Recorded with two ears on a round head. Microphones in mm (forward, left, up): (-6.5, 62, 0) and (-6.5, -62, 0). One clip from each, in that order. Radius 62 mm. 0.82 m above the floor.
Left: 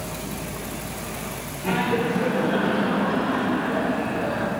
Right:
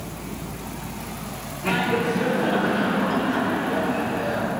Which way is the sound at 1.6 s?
45° right (ahead or behind).